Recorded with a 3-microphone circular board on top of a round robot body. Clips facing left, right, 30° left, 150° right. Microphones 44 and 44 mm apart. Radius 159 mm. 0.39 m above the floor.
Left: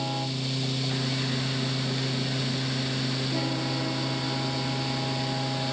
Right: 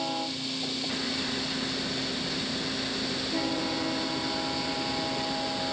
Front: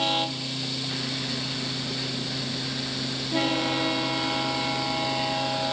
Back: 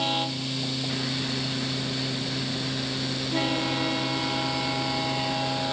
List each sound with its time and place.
Only background noise.